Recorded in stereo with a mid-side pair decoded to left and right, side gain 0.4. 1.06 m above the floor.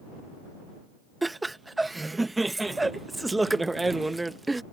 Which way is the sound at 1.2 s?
15° right.